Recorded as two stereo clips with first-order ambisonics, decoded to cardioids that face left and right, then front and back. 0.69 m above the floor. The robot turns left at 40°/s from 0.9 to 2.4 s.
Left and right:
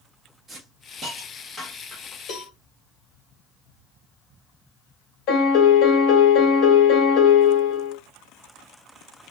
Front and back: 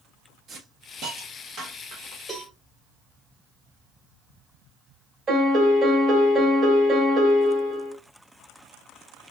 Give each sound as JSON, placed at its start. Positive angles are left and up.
{"t": 0.5, "sound": "a hiss", "azimuth_deg": -140, "distance_m": 0.9}
{"t": 2.3, "sound": "a cowbell", "azimuth_deg": 95, "distance_m": 1.2}
{"t": 5.3, "sound": "a piano", "azimuth_deg": 120, "distance_m": 1.1}